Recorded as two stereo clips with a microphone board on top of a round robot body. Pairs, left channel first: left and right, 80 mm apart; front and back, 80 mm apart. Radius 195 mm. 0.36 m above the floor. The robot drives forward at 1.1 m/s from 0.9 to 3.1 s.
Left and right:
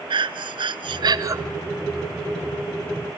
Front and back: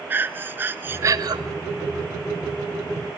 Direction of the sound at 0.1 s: 115° right.